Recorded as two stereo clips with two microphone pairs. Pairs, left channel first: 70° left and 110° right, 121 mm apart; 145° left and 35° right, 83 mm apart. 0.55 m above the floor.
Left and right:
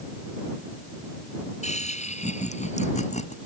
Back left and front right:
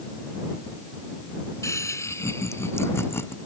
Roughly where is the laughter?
Left.